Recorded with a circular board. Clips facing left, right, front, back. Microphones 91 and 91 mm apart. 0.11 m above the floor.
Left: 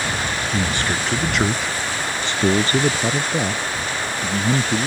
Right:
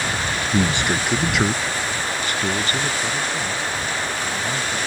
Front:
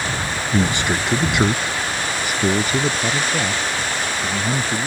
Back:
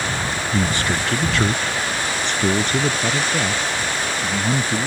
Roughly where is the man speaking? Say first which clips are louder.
Right 4 dB, front 3 dB; ahead right.